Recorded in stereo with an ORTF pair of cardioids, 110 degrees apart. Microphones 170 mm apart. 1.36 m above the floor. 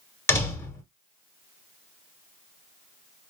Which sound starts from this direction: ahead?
A door slam, at 0.3 s.